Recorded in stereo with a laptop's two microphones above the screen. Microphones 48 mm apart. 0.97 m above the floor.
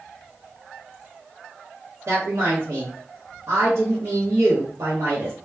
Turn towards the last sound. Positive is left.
turn(degrees=-80)